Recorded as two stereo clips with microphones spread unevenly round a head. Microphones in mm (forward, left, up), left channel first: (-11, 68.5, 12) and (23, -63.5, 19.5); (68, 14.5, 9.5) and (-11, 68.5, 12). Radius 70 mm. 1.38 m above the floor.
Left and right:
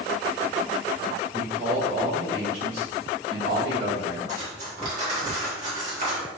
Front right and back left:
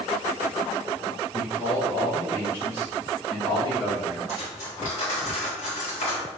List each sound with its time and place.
1.3 s a man speaking: 55° right, 1.7 m; by 4.2 s 105° right, 3 m
4.3 s cutlery clinking: 40° right, 1.7 m